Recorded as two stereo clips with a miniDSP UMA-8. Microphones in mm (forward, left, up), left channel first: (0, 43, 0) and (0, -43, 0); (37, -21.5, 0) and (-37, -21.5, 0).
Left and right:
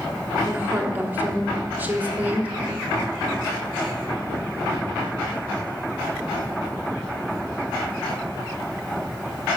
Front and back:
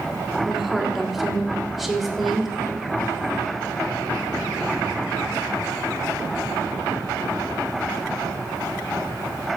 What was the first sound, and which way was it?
A woman speaking, 100° right.